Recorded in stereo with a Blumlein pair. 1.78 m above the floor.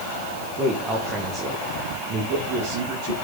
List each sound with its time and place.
0.6 s a man speaking: 10° right, 2.5 m; by 3.1 s 40° right, 3 m